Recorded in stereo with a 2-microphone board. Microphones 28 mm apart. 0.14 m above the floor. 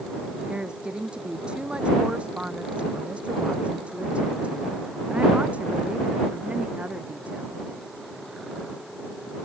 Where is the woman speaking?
35° right (ahead or behind); by 7.6 s 60° right (ahead or behind).